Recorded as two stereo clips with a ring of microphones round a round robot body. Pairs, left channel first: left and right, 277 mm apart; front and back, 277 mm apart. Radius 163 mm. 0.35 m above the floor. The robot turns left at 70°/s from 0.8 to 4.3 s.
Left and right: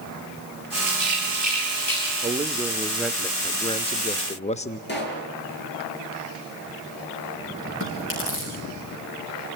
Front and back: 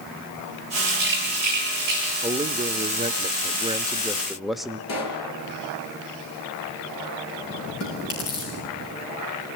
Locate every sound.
0.9 s a rattle: 115° right, 9 m; by 2.1 s 160° left, 9 m
2.2 s a man speaking: 125° right, 0.8 m; by 4.8 s 90° left, 0.8 m
4.9 s a pop: 40° left, 6 m
7.8 s chewing: 45° left, 6.5 m